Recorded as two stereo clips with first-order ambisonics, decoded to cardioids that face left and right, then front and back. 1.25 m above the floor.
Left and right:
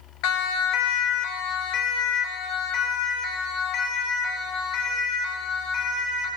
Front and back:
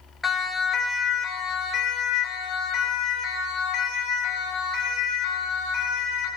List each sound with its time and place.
0.2 s a siren: 80° left, 2.5 m; by 6.3 s 50° left, 9.5 m